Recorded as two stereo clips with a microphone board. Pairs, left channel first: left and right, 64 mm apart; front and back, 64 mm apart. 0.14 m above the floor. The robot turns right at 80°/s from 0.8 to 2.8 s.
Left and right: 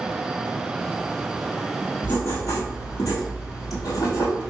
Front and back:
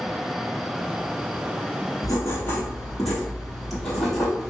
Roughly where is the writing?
Ahead left.